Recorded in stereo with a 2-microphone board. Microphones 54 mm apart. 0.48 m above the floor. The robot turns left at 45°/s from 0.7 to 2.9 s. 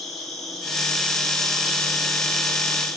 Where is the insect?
175° left, 1.4 m; by 3.0 s 75° left, 1.4 m.